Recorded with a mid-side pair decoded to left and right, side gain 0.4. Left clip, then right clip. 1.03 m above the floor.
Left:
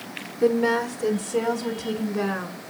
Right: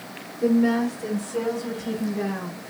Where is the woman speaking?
55° left, 2.5 m; by 2.6 s 65° left, 4.5 m.